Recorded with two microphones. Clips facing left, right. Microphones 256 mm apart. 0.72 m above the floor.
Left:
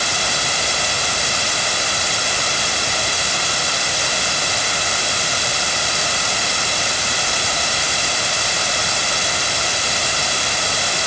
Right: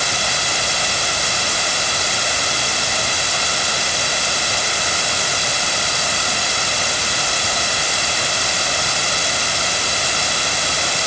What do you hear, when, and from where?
Only background noise.